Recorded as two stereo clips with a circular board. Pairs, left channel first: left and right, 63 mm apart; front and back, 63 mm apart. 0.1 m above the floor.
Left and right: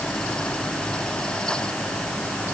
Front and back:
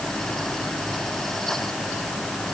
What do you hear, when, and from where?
Only background noise.